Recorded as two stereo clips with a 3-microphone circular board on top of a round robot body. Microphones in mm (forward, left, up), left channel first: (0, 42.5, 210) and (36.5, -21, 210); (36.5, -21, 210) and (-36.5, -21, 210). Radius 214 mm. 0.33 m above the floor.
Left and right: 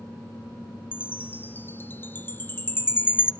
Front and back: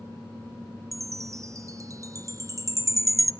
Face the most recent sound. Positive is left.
turn(degrees=170)